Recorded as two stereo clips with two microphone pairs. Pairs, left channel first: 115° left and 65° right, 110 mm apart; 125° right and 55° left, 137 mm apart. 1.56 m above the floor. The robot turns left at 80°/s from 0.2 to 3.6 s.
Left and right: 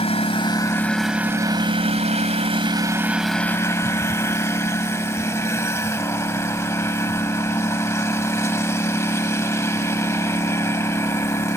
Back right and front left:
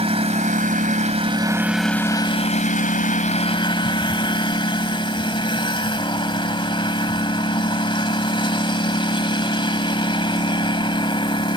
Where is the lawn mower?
95° left; by 11.6 s straight behind.